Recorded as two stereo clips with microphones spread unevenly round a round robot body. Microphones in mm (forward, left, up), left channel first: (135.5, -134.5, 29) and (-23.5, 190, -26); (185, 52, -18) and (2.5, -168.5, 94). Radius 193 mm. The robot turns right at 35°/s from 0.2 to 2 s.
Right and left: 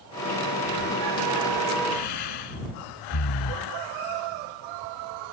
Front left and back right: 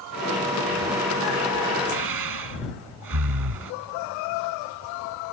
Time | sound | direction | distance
1.9 | breathing | 105° right | ?